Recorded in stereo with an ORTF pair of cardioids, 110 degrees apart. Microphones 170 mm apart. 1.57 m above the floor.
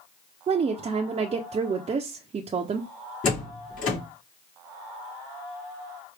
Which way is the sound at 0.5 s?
35° right.